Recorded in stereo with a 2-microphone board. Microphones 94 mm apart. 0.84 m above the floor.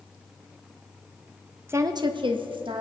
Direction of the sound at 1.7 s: 25° right (ahead or behind).